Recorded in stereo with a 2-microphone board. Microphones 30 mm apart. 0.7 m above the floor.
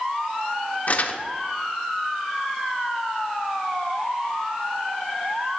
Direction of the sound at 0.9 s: 55° left (ahead or behind).